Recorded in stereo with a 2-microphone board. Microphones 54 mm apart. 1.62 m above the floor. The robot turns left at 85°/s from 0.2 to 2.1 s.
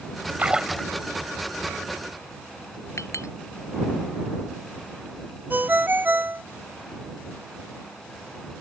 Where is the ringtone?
40° right (ahead or behind).